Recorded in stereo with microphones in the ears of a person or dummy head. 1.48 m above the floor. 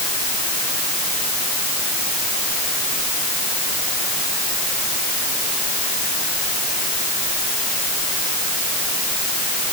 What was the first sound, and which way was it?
Only background noise.